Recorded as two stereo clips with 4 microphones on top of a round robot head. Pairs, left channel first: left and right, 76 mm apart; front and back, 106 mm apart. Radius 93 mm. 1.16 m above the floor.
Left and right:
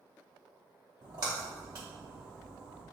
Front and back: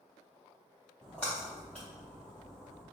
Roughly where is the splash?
Right.